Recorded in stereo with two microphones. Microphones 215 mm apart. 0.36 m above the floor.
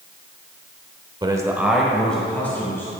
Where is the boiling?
No boiling in this recording.